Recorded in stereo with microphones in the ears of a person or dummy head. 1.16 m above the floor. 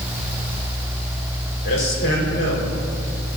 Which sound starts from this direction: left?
A man speaking, at 1.6 s.